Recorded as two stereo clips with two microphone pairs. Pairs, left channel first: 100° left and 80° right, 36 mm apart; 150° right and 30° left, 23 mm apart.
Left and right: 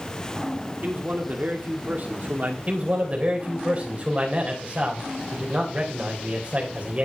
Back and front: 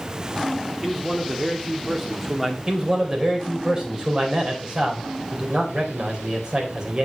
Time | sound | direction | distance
0.8 | a man speaking | 45° right | 2 m
2.7 | a man speaking | 25° right | 3.5 m